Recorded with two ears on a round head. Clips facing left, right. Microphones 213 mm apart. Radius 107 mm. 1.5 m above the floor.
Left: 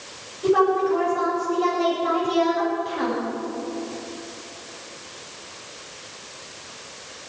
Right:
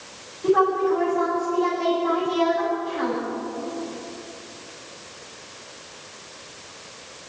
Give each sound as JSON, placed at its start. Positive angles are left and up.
{"t": 0.4, "sound": "a woman speaking", "side_deg": 60, "distance_m": 6.5}